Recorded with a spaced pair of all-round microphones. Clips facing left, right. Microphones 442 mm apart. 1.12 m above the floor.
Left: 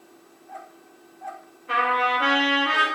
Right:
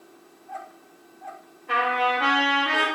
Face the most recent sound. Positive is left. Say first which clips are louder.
# right 1 dB
turn(degrees=-5)  # may be behind; listen again after turning